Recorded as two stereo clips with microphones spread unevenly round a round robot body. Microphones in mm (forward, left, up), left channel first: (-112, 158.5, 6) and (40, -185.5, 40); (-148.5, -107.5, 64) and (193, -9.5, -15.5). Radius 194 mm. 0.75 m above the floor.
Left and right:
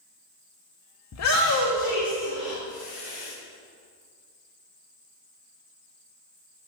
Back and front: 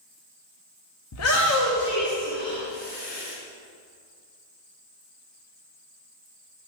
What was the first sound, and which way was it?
A shout, 145° left.